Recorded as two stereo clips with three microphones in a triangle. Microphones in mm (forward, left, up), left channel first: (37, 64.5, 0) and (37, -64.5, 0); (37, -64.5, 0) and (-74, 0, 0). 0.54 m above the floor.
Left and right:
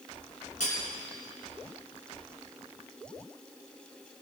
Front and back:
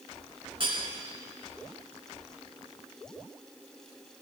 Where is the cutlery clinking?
105° left, 3.5 m.